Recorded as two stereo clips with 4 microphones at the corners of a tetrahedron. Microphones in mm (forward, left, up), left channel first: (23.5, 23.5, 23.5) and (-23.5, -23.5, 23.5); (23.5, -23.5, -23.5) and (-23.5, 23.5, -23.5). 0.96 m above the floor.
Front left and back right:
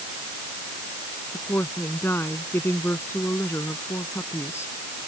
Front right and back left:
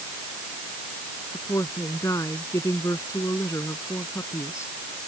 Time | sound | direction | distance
1.3 | a woman speaking | 10° right | ?